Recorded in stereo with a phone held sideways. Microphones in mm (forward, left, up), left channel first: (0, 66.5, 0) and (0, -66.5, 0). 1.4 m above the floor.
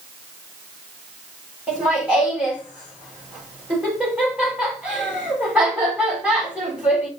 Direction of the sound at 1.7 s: 10° right (ahead or behind).